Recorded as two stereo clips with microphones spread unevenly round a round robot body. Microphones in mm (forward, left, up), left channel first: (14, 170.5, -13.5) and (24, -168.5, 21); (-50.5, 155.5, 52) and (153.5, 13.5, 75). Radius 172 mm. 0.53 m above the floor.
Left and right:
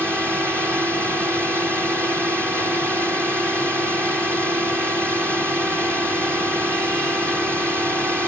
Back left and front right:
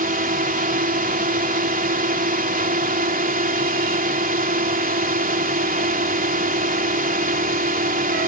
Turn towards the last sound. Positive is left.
turn(degrees=0)